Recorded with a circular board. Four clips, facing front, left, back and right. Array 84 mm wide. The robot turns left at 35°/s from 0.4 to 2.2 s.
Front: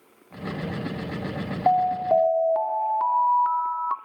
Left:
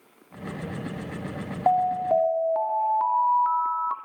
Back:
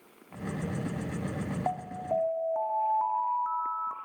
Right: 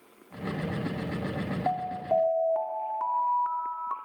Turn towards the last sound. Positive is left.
turn(degrees=25)